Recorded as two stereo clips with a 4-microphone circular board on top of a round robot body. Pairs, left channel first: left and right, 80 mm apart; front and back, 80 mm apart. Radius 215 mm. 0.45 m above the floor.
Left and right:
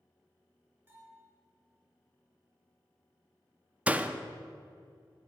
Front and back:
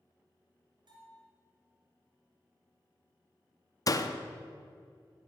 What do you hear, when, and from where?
0.9 s a bell: 155° right, 2.5 m
3.9 s a door slam: 20° right, 0.8 m